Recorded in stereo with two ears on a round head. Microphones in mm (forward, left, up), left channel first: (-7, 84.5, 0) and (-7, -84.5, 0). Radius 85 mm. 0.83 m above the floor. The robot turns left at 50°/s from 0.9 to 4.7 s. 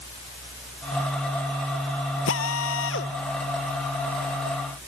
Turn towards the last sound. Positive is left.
turn(degrees=-20)